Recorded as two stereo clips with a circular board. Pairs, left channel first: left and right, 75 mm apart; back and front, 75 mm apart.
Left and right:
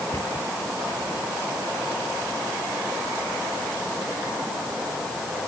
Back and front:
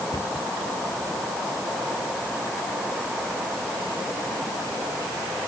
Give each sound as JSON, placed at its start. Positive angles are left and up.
{"t": 0.1, "sound": "a cupboard door", "azimuth_deg": 150}